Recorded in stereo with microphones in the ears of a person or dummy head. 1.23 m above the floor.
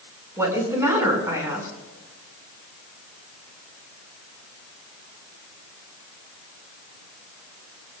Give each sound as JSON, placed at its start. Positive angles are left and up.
{"t": 0.4, "sound": "a woman speaking", "side_deg": -10, "distance_m": 5.0}